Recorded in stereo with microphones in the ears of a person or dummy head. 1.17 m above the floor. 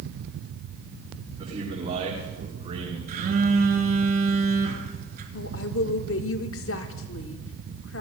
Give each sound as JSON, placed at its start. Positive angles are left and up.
{"t": 1.4, "sound": "a man speaking", "side_deg": -25, "distance_m": 8.5}
{"t": 3.1, "sound": "a phone buzzing", "side_deg": -55, "distance_m": 3.5}
{"t": 5.3, "sound": "a woman speaking", "side_deg": 70, "distance_m": 1.5}